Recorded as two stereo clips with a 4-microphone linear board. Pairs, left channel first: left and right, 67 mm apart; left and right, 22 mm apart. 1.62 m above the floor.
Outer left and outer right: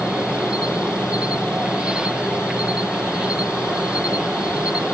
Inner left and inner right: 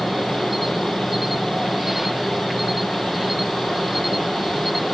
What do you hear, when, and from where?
0.0 s an insect: 15° right (ahead or behind)